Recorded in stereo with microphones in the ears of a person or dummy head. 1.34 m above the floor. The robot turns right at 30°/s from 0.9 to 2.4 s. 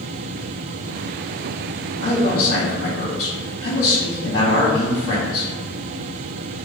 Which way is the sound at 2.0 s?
55° left (ahead or behind).